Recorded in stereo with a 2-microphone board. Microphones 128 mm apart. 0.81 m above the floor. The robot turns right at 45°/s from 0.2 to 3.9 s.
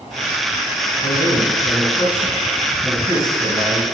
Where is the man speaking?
100° left, 4 m; by 3.8 s 130° right, 4 m.